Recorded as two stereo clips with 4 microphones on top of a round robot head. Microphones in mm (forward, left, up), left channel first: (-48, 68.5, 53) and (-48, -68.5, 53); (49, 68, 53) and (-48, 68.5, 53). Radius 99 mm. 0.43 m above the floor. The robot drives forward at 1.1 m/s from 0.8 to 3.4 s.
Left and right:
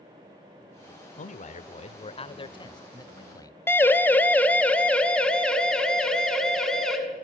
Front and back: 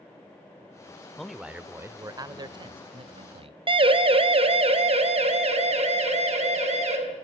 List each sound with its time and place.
1.2 s a man speaking: 85° left, 1.4 m; by 3.6 s 155° left, 3 m
3.7 s a siren: 165° left, 3 m; by 7.0 s 175° left, 6.5 m